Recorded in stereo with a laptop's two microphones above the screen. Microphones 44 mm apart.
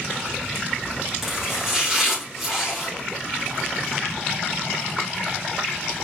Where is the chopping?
5° right (ahead or behind), 3.5 m.